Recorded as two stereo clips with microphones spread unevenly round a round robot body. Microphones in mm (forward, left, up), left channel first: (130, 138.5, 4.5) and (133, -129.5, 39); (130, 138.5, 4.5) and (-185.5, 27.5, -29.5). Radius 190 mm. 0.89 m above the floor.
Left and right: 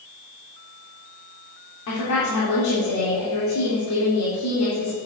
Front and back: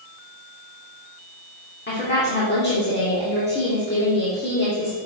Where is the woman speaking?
80° left, 3 m.